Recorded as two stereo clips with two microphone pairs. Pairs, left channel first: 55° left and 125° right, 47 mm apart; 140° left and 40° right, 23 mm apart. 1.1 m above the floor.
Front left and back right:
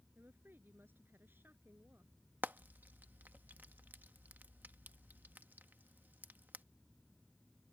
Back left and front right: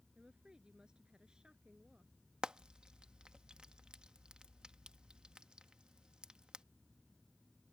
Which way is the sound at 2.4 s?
80° right.